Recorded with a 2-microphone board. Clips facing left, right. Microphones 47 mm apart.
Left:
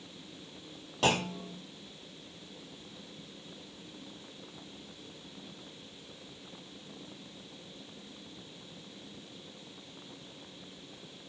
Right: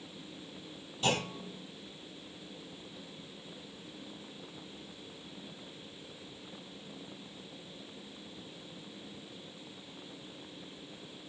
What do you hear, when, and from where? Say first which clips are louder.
1.0 s a clunk: left 3 dB; 80° left, 1.0 m